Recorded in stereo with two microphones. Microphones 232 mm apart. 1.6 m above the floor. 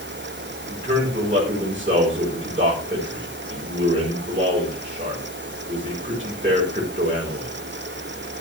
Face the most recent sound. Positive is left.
turn(degrees=-30)  # may be behind; listen again after turning